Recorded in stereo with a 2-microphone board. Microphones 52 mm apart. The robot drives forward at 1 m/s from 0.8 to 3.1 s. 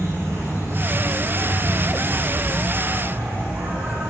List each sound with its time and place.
0.0 s an insect: 50° right (ahead or behind), 4.5 m; by 4.1 s 35° right (ahead or behind), 6 m